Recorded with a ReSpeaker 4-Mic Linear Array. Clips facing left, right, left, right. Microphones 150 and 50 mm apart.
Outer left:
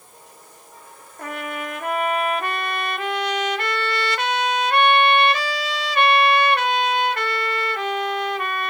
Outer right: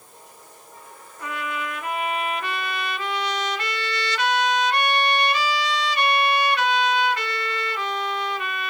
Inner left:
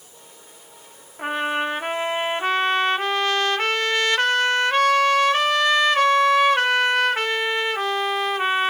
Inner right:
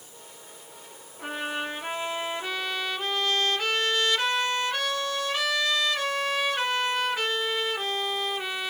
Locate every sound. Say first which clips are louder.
1.2 s a trumpet: outer left 1 dB, inner left 8 dB; 55° left (ahead or behind), 0.7 m